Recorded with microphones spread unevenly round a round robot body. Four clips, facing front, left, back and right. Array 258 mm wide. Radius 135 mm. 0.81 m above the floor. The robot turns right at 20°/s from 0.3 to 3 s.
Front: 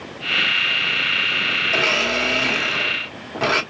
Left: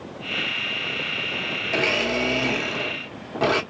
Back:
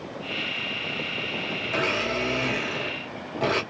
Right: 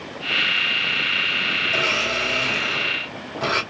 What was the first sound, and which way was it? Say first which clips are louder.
A blender: left 3 dB, front 4 dB; 65° left.